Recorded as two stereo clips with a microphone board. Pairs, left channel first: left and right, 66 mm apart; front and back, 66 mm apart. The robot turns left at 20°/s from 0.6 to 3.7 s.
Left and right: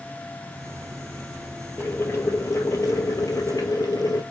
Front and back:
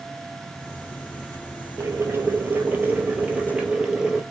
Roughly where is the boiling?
Behind left.